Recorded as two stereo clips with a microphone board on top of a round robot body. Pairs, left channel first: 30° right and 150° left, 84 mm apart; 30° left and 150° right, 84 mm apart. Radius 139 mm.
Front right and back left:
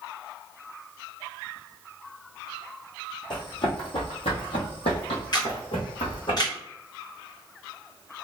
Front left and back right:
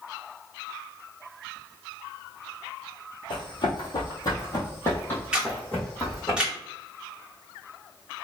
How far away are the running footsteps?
About 1.6 m.